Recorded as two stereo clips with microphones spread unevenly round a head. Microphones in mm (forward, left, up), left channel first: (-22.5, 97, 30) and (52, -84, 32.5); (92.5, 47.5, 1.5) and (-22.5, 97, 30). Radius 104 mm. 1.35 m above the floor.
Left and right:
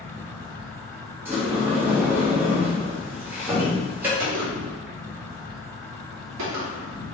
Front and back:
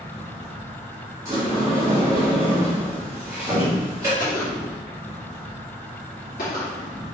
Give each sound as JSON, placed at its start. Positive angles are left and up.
{"t": 0.0, "sound": "an insect", "azimuth_deg": -160, "distance_m": 1.0}
{"t": 1.2, "sound": "a sliding door", "azimuth_deg": -145, "distance_m": 1.0}
{"t": 4.2, "sound": "a gunshot", "azimuth_deg": -70, "distance_m": 1.5}